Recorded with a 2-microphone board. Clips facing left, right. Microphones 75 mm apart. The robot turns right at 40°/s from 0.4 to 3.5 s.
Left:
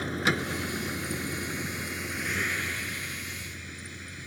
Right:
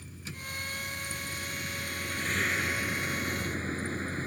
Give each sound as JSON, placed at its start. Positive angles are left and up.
{"t": 0.0, "sound": "a vehicle", "azimuth_deg": 95}